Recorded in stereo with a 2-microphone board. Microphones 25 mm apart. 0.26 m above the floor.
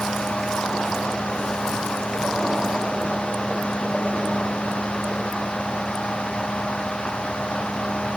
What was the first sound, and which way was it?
Only background noise.